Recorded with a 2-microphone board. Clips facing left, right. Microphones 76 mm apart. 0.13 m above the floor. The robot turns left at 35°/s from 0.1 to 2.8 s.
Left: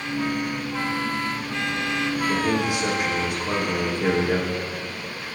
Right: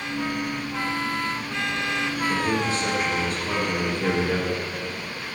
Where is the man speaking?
30° left (ahead or behind), 5 m; by 4.6 s 15° left (ahead or behind), 5 m.